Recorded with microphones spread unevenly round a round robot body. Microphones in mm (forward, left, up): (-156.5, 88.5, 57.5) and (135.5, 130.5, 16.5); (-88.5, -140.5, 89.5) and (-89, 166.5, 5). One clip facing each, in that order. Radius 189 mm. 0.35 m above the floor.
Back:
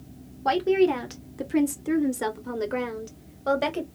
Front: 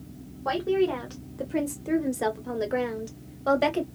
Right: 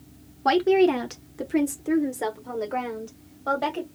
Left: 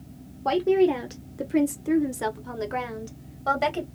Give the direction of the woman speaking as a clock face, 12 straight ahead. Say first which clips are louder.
Back 3 dB, right 1 dB; 5 o'clock.